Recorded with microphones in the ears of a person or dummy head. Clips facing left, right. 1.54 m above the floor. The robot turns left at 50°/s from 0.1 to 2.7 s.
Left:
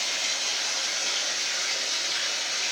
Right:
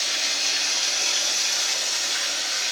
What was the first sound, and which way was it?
Running water, 15° right.